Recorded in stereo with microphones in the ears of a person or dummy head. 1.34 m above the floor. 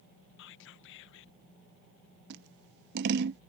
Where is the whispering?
70° left (ahead or behind).